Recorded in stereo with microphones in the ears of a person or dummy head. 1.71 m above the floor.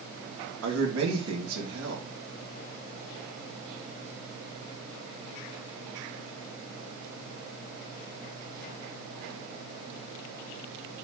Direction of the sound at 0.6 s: 85° right.